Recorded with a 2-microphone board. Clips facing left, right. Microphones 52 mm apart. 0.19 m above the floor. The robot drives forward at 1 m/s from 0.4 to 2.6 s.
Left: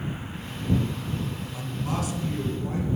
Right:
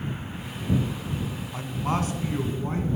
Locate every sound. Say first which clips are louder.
1.5 s a man speaking: right 4 dB; 40° right (ahead or behind), 2 m; by 2.9 s 35° right (ahead or behind), 2.5 m